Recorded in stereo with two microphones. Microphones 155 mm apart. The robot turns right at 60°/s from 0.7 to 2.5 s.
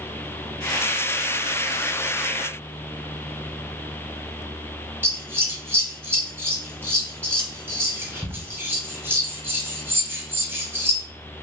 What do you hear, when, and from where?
5.0 s scissors: 15° right (ahead or behind), 0.8 m